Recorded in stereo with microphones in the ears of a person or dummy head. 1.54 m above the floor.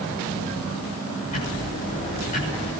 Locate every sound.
1.3 s ticking: 45° left (ahead or behind), 6.5 m